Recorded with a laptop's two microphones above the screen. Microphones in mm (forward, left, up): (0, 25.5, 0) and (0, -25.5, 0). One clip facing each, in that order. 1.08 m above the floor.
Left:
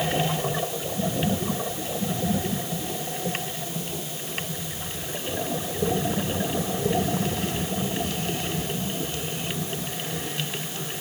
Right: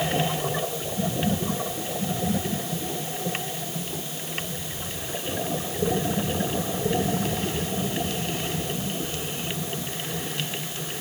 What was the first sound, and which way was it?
Only background noise.